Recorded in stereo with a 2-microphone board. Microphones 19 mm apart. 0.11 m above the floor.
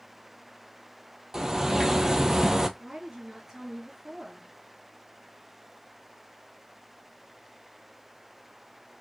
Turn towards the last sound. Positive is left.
turn(degrees=-45)  # may be behind; listen again after turning